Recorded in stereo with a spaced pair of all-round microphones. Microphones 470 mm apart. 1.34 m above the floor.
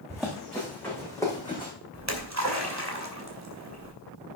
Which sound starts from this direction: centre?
Running footsteps, at 0.1 s.